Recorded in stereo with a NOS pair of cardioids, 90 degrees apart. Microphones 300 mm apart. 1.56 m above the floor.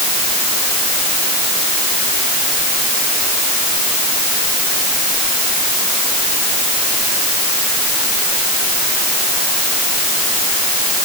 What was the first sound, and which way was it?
Only background noise.